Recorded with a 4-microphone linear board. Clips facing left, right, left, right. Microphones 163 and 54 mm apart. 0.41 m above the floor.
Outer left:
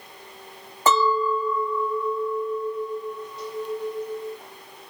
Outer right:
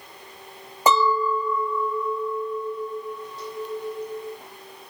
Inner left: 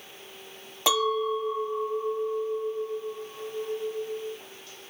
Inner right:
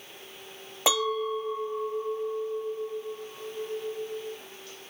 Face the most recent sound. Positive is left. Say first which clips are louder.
# even, inner left 2 dB
turn(degrees=-15)  # may be behind; listen again after turning